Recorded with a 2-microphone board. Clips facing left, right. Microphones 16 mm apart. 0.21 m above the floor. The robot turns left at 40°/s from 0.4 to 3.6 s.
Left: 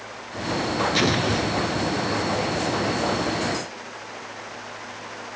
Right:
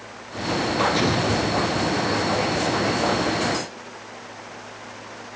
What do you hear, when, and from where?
0.9 s an explosion: 155° left, 1.4 m; by 2.0 s 110° left, 1.4 m